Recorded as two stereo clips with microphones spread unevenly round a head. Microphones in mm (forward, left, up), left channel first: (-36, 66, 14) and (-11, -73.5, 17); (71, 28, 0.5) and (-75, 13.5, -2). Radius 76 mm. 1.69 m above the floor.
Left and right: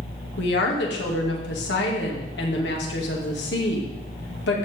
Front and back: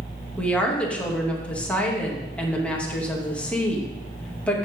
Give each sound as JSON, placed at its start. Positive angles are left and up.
{"t": 0.4, "sound": "a woman speaking", "azimuth_deg": 85, "distance_m": 2.5}